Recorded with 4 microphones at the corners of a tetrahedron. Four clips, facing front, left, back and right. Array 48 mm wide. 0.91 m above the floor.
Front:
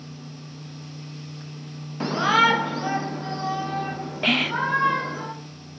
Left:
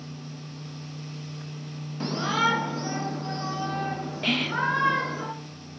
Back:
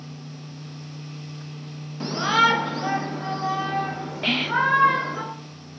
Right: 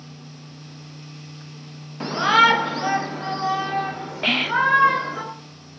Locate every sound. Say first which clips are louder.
2.0 s a shout: right 9 dB, front 1 dB; 40° right, 0.9 m; by 5.2 s 110° right, 4.5 m
4.2 s whispering: right 6 dB, back 1 dB; 55° right, 0.7 m